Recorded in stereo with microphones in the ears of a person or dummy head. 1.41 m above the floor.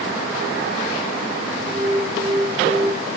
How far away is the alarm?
About 3 m.